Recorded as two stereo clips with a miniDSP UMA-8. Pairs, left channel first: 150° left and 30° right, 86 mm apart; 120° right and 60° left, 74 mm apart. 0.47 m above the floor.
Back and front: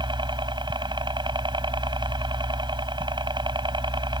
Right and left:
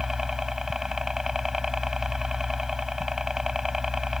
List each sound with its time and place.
0.0 s a helicopter: 25° right